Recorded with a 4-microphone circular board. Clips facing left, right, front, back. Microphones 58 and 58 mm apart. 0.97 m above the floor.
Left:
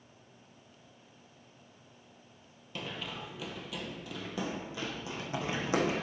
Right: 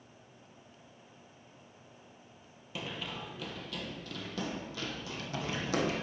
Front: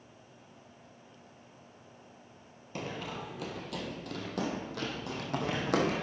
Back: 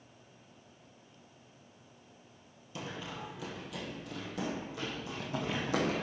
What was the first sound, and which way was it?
Running footsteps, 5° right.